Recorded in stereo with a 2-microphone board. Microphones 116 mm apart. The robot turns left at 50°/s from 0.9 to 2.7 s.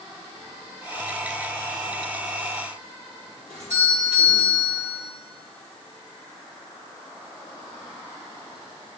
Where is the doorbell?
80° right, 7 m.